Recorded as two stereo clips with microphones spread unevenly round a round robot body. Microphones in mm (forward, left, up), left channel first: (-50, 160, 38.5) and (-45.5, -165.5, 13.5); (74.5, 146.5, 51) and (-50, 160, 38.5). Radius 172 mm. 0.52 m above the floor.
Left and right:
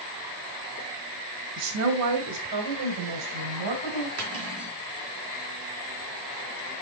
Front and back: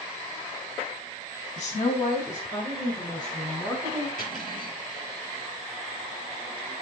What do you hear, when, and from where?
1.6 s a woman speaking: 50° right, 0.9 m; by 4.1 s 115° right, 3.5 m
4.2 s cutlery clinking: 135° right, 3.5 m